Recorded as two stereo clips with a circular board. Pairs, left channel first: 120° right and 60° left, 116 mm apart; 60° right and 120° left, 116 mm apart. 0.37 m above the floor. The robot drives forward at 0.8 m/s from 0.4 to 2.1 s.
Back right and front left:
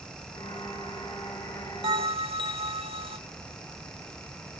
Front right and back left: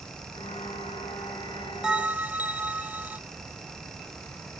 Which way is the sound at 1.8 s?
40° left.